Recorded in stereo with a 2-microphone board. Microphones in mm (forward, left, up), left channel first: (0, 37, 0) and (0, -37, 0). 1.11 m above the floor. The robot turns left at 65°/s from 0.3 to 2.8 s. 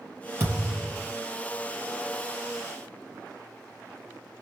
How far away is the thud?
About 4 m.